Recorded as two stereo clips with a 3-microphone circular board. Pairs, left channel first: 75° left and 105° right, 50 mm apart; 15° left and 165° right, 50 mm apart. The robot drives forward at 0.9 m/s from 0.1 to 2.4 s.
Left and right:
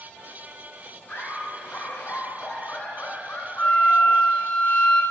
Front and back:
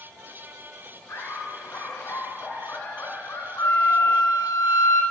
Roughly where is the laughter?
Ahead left.